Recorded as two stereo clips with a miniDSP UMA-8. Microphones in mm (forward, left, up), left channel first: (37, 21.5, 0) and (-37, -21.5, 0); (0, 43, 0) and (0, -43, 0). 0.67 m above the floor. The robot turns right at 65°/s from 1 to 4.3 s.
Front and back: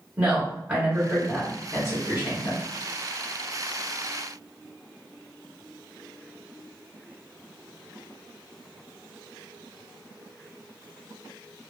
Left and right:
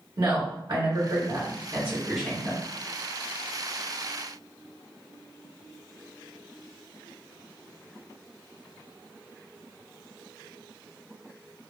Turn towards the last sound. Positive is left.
turn(degrees=135)